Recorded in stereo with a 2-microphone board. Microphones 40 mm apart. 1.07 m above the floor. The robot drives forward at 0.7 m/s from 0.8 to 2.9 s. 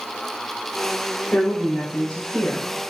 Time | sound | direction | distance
1.3 | a woman speaking | 45° left (ahead or behind) | 4 m